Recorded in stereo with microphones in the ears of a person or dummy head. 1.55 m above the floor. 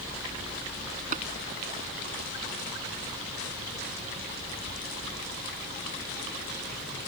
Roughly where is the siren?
No siren in this recording.